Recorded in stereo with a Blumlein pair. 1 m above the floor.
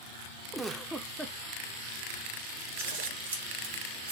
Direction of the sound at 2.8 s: 60° right.